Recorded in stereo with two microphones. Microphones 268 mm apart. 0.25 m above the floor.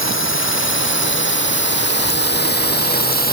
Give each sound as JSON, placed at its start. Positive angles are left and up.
{"t": 0.0, "sound": "a drone", "side_deg": 50}